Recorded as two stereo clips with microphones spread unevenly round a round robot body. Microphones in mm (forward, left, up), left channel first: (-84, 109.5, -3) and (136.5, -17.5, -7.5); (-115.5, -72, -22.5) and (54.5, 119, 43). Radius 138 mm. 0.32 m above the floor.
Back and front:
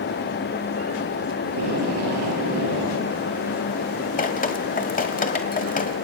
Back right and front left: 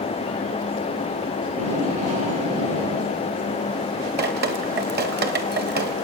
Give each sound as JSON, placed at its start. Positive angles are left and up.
{"t": 1.4, "sound": "tape being pulled", "azimuth_deg": -20, "distance_m": 8.5}
{"t": 4.2, "sound": "dripping", "azimuth_deg": 100, "distance_m": 1.5}